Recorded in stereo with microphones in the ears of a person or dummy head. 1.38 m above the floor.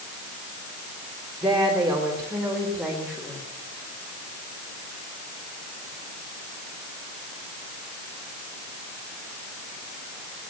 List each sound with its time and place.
1.4 s a woman speaking: 15° right (ahead or behind), 3 m; by 3.5 s 5° left (ahead or behind), 4.5 m